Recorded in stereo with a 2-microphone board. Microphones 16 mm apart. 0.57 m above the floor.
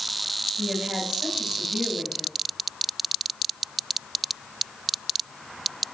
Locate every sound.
0.6 s a woman speaking: 60° right (ahead or behind), 3.5 m